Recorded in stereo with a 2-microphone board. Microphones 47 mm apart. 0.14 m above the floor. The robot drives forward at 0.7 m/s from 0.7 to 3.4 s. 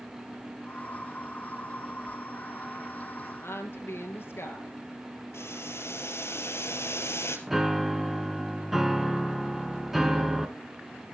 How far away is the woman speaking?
About 3 m.